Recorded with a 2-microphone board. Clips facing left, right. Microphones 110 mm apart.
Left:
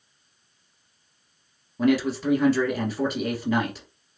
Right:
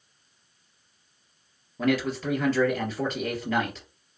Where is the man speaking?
10° left (ahead or behind), 1.5 m.